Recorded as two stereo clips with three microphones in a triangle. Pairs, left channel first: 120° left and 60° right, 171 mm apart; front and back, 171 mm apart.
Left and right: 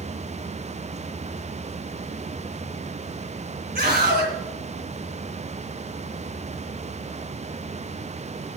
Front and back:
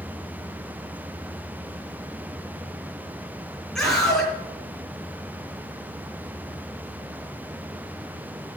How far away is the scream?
About 3 m.